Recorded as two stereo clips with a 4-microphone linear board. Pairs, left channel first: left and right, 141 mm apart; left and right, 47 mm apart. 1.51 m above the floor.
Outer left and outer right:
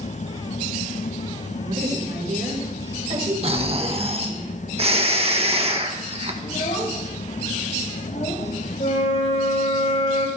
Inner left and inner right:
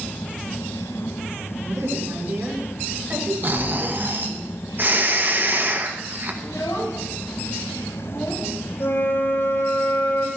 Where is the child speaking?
50° left (ahead or behind), 8.5 m.